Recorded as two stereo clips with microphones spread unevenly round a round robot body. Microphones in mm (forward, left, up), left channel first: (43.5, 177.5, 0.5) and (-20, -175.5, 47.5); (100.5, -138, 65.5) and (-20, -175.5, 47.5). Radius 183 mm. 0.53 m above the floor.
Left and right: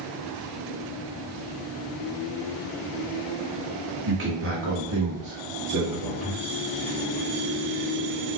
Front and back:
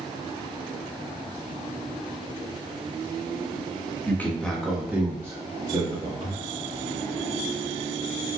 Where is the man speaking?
60° right, 1.3 m; by 6.4 s 165° right, 1.7 m.